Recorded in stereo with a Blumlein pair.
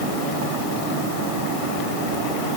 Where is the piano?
No piano in this recording.